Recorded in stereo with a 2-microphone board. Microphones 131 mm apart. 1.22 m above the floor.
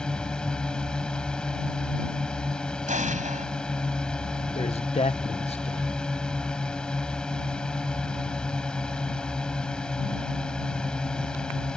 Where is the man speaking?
50° left (ahead or behind).